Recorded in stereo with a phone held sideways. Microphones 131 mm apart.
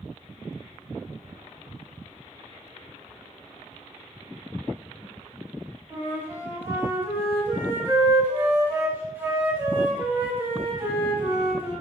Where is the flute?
15° right (ahead or behind), 5.5 m.